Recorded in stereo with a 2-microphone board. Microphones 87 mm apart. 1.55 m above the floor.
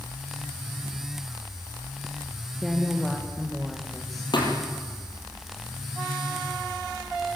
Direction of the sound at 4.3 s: 60° left (ahead or behind).